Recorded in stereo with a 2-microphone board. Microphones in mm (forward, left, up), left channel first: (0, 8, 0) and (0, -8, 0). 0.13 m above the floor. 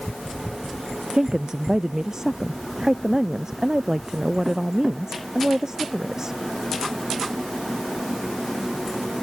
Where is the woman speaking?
45° right (ahead or behind).